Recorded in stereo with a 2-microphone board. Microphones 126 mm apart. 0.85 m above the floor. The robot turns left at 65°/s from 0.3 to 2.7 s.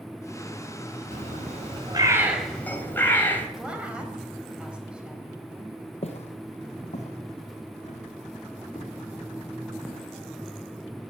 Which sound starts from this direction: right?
A bird, at 1.1 s.